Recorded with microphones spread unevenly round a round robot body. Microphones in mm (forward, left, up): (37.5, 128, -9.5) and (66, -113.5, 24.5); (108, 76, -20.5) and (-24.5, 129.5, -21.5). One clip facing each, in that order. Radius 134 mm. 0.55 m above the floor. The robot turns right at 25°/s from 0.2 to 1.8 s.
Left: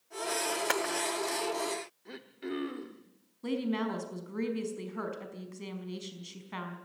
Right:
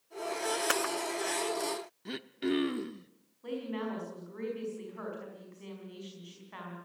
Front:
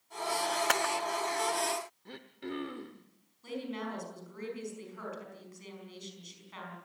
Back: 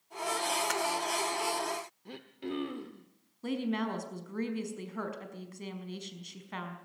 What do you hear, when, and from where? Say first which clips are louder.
0.7 s a camera shutter: left 1 dB, front 1 dB; straight ahead, 0.9 m; by 0.9 s 5° left, 0.9 m
2.0 s throat clearing: right 8 dB, back 2 dB; 125° right, 0.8 m
3.4 s a woman speaking: left 5 dB, back 6 dB; 135° left, 5 m